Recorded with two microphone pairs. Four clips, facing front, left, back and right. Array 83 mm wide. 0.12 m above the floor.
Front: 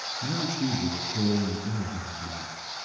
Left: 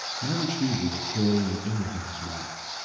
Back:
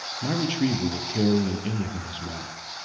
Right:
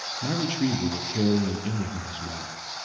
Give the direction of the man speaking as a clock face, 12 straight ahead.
5 o'clock.